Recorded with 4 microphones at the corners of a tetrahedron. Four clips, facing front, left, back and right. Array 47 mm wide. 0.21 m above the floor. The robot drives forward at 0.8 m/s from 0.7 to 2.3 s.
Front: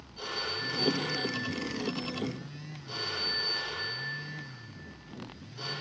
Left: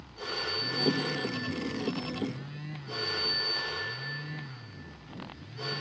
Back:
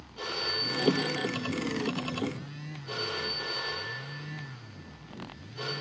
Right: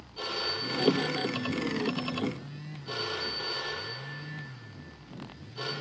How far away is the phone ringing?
About 5 m.